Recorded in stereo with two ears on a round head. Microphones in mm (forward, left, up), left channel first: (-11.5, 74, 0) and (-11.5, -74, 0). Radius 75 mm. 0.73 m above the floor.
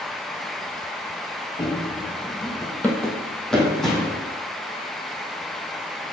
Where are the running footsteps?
25° left (ahead or behind), 0.9 m; by 4.2 s centre (ahead or behind), 1.9 m.